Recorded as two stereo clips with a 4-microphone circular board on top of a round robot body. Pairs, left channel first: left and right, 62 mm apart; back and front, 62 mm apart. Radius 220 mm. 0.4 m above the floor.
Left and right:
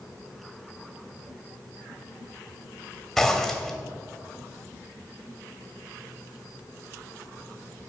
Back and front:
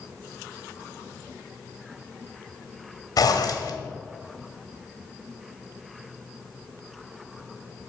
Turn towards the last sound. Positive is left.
turn(degrees=175)